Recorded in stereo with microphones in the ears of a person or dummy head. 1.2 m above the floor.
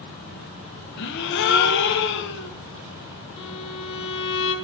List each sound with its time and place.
1.0 s a gasp: 60° left (ahead or behind), 1.0 m
3.4 s a violin: 25° left (ahead or behind), 1.4 m